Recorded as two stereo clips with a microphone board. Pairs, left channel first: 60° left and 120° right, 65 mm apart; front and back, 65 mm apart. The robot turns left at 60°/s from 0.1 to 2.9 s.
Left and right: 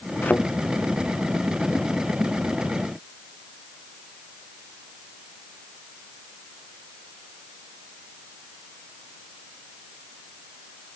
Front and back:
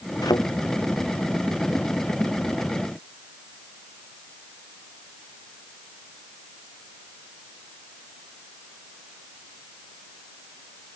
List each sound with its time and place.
0.2 s a thud: straight ahead; by 0.5 s 15° right